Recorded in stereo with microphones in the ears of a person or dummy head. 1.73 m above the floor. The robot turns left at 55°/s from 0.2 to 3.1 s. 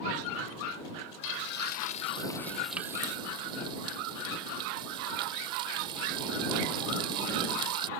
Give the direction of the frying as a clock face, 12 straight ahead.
10 o'clock.